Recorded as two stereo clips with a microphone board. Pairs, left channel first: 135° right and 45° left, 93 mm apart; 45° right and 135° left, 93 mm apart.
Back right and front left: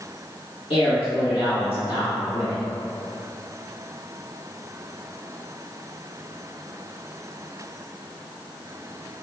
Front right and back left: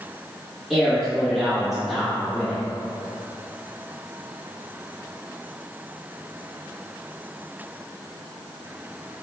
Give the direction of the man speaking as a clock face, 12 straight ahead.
5 o'clock.